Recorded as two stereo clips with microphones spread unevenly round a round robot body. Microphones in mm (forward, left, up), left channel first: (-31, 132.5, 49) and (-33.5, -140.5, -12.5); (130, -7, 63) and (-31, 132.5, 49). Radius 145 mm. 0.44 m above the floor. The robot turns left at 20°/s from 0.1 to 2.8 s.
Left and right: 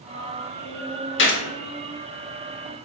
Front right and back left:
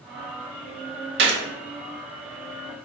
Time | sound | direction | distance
1.2 | a gunshot | 140° left | 0.7 m